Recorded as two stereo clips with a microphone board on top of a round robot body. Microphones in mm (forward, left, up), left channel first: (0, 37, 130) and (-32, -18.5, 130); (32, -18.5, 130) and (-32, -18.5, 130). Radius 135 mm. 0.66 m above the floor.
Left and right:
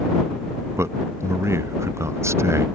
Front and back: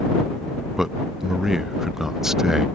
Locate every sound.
0.8 s a man speaking: 100° right